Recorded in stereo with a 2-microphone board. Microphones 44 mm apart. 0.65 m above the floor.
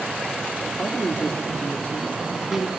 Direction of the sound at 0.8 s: 40° left (ahead or behind).